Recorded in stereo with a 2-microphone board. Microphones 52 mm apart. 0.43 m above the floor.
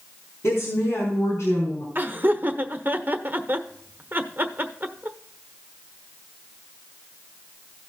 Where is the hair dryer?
I don't hear a hair dryer.